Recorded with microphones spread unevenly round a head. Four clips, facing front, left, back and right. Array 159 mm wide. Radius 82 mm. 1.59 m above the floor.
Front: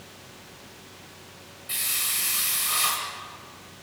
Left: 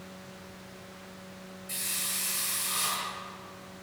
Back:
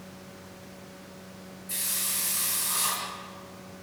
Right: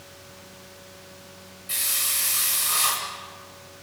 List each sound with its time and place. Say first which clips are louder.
1.7 s a hiss: right 7 dB, front 5 dB; 45° right, 9.5 m